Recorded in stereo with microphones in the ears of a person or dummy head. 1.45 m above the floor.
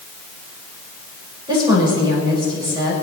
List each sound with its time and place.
1.5 s a woman speaking: 30° right (ahead or behind), 5.5 m